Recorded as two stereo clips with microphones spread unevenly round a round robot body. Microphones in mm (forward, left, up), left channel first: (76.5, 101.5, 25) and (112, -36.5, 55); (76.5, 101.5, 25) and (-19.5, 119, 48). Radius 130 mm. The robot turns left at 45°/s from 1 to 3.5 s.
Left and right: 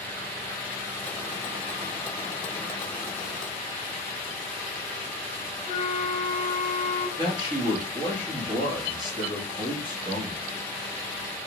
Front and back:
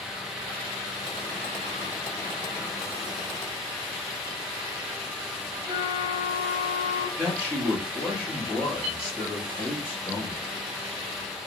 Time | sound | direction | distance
5.7 | a flute | 130° right | 0.8 m
7.2 | a man speaking | 100° right | 1.1 m